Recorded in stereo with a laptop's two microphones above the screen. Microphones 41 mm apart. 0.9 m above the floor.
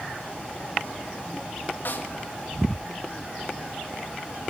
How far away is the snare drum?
About 1.5 m.